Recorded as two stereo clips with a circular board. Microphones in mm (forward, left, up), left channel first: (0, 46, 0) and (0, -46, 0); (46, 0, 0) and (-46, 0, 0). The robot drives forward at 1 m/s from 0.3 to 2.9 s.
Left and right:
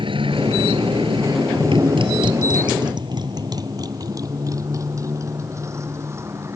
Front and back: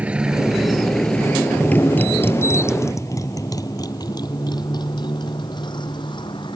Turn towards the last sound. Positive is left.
turn(degrees=-30)